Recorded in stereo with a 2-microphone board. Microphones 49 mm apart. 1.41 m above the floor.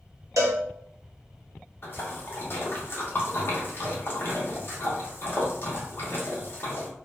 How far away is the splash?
About 0.9 m.